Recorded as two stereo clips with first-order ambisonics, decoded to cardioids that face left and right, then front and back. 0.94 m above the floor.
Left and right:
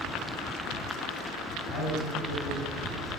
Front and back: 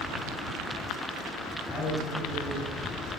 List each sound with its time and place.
1.7 s a man speaking: 80° left, 6.5 m